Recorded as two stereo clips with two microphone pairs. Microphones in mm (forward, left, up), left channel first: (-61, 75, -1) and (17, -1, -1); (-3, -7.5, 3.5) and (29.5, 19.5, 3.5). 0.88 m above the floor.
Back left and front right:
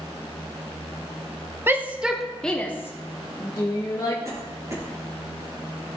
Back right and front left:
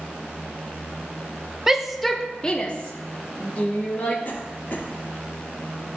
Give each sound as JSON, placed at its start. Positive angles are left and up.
{"t": 1.7, "sound": "a shout", "azimuth_deg": -20, "distance_m": 0.8}
{"t": 4.2, "sound": "a cough", "azimuth_deg": -105, "distance_m": 2.0}